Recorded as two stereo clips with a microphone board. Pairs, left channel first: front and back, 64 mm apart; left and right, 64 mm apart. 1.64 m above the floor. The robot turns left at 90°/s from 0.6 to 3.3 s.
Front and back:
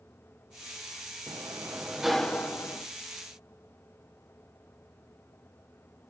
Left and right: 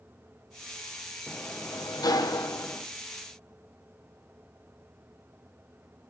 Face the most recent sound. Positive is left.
turn(degrees=-15)